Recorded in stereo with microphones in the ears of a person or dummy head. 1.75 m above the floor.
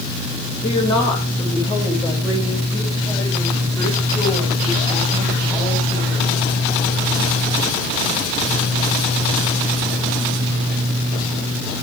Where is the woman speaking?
35° left (ahead or behind), 2 m; by 6.3 s 10° left (ahead or behind), 5.5 m.